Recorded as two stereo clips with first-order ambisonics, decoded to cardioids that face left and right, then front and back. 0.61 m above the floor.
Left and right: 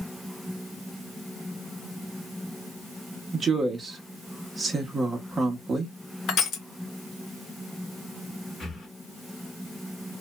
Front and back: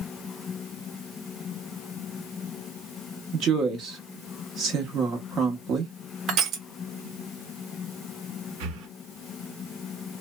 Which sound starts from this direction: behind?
Breathing, at 8.6 s.